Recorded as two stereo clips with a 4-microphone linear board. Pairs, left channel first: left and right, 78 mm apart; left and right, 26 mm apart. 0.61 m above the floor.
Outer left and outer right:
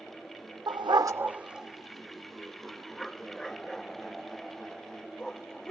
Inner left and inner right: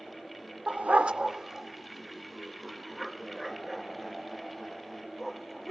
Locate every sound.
0.7 s a dog barking: 65° right (ahead or behind); by 5.7 s 10° left (ahead or behind)